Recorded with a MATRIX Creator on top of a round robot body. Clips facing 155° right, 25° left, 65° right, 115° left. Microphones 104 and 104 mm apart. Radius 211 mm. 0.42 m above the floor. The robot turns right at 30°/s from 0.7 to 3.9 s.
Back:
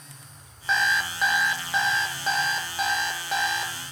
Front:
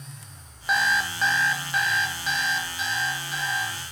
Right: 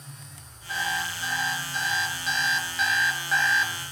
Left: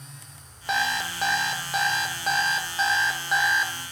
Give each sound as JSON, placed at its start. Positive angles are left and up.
{"t": 0.7, "sound": "an alarm clock", "azimuth_deg": 105, "distance_m": 0.9}